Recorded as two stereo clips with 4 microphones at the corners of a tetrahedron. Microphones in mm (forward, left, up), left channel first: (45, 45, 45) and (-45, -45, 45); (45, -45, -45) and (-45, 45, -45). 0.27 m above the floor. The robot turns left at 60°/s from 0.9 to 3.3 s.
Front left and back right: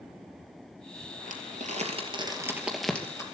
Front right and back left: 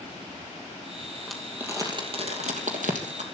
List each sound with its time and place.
1.3 s crumpling: 130° right, 2.5 m; by 3.2 s 110° left, 2.5 m